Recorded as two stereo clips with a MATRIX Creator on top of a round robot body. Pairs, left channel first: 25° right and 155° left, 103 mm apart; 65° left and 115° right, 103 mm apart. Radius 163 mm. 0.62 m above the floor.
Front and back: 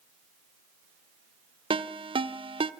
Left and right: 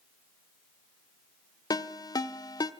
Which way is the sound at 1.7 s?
120° left.